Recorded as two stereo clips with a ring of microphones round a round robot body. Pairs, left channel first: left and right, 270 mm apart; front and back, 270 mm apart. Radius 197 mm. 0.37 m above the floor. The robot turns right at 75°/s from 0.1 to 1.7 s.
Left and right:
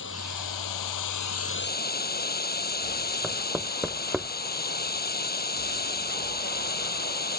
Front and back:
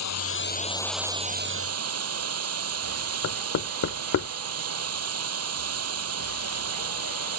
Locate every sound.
0.0 s running water: 25° left; by 7.4 s 145° left
3.2 s knocking: 5° right